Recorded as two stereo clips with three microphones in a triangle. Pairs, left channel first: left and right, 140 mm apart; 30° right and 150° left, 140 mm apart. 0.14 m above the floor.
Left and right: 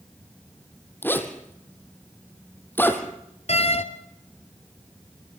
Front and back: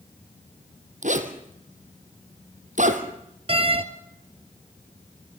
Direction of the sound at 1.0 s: 165° left.